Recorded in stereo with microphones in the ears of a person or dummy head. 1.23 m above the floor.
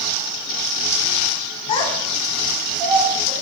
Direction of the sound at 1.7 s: 25° left (ahead or behind).